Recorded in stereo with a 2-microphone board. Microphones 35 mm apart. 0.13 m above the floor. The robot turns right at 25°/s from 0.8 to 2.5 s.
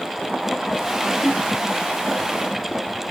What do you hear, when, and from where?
1.1 s a whoosh: 10° right (ahead or behind), 1.7 m; by 1.5 s 5° right (ahead or behind), 1.7 m